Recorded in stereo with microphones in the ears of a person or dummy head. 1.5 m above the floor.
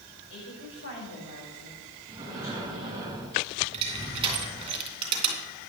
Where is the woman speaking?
70° left (ahead or behind), 6 m.